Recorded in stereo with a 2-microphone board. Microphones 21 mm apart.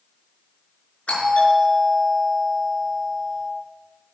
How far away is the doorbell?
About 5 m.